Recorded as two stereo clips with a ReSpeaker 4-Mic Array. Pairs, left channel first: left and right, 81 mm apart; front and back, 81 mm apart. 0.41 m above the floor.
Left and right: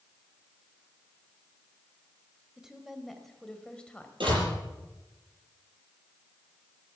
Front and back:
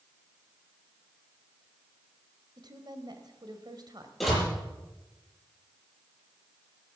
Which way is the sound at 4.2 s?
90° right.